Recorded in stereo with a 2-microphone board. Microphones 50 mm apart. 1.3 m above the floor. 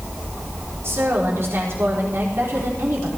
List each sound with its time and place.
0.8 s a woman speaking: 60° right (ahead or behind), 4 m